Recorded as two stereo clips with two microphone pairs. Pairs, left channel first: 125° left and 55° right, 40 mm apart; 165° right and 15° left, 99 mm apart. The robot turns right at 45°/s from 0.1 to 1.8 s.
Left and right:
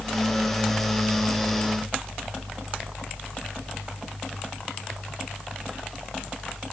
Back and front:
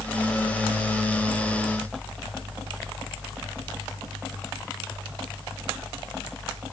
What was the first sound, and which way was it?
Only background noise.